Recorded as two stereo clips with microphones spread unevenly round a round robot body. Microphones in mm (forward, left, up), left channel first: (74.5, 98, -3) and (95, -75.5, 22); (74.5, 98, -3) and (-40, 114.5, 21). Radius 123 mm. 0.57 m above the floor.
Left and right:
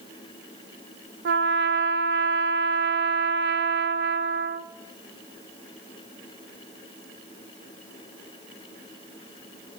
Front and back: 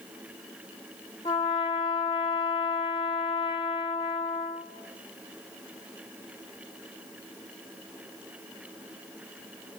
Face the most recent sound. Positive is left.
turn(degrees=-70)